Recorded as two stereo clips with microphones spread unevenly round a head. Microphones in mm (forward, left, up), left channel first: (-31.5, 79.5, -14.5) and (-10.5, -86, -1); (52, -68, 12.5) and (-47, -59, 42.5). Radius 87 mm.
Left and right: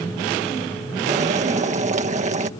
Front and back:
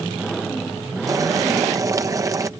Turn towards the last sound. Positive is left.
turn(degrees=-130)